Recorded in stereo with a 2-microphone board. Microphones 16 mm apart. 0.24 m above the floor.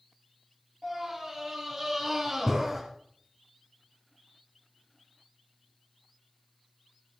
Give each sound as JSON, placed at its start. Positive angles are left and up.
{"t": 0.8, "sound": "a scream", "side_deg": -25, "distance_m": 5.0}